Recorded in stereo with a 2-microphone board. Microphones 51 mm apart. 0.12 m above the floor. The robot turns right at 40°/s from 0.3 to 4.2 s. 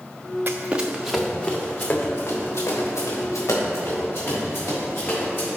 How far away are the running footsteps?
About 0.6 m.